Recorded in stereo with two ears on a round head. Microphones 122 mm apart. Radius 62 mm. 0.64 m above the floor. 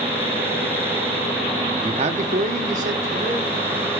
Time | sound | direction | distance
1.8 | a man speaking | 30° right (ahead or behind) | 0.6 m